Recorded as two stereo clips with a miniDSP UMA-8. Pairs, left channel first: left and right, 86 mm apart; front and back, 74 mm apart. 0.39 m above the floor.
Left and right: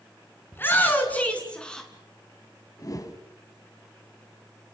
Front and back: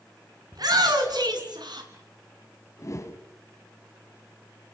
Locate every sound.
0.5 s a shout: 155° left, 5 m; by 1.9 s 170° left, 4.5 m
2.8 s a whoosh: 45° left, 2 m